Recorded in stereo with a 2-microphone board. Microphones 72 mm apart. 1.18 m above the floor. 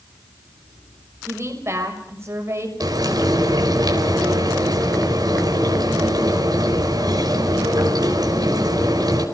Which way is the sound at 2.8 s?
70° right (ahead or behind).